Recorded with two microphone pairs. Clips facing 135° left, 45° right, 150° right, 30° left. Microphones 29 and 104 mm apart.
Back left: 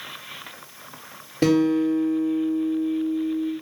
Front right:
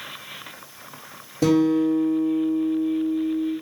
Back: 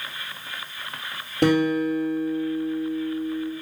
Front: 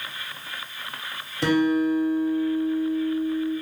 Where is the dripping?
No dripping in this recording.